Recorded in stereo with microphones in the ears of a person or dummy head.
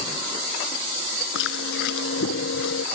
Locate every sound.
1.4 s chewing: 75° left (ahead or behind)